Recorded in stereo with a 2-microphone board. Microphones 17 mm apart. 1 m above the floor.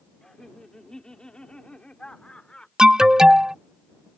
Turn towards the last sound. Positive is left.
turn(degrees=-45)  # may be behind; listen again after turning